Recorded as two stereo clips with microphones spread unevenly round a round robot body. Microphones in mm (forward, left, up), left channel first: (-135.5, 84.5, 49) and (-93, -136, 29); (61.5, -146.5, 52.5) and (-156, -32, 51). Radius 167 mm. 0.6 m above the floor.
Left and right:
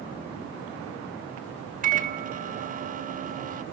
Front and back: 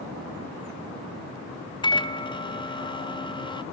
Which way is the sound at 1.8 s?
90° right.